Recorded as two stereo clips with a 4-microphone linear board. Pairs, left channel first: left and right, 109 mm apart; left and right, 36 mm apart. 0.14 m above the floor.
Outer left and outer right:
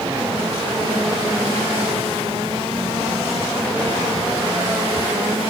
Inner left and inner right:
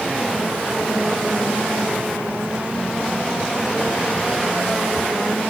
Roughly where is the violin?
I don't hear a violin.